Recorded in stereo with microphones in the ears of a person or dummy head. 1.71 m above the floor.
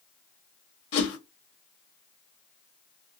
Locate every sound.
0.9 s a whoosh: 35° left (ahead or behind), 2 m